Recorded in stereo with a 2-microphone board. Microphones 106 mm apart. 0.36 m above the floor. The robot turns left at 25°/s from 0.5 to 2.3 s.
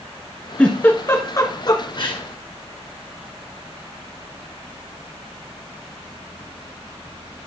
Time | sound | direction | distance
0.6 | a giggle | 10° left (ahead or behind) | 1.5 m